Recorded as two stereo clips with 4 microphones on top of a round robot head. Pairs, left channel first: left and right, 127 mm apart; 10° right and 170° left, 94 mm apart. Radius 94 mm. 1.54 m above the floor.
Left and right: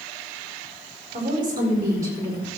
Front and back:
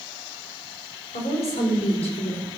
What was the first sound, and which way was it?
A woman speaking, 30° right.